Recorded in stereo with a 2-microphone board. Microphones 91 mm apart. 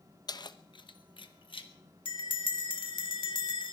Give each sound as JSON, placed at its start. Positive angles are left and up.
{"t": 0.3, "sound": "keys jangling", "side_deg": 50, "distance_m": 0.7}
{"t": 2.0, "sound": "a bell", "side_deg": 70, "distance_m": 2.0}